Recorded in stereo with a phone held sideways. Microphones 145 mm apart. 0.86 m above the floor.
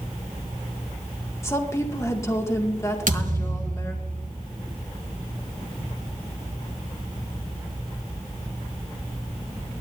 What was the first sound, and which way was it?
A woman speaking, 20° left (ahead or behind).